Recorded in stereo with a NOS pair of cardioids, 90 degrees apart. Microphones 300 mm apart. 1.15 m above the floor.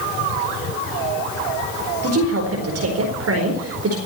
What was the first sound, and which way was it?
A woman speaking, 50° right.